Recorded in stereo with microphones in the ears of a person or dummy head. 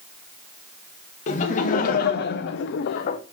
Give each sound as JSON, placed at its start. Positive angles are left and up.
{"t": 1.3, "sound": "laughter", "side_deg": 40, "distance_m": 1.3}